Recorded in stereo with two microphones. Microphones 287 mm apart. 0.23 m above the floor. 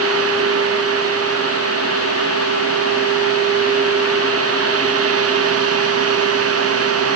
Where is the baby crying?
I don't hear a baby crying.